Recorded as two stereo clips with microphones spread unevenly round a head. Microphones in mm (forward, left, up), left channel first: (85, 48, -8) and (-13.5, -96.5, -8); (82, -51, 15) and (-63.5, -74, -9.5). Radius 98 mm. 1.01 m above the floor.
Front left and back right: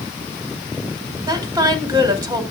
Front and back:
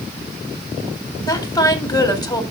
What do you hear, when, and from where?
1.3 s a woman speaking: 55° right, 4 m